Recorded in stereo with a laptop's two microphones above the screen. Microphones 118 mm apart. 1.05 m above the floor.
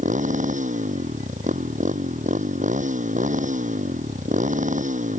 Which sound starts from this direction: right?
A motorcycle, at 0.0 s.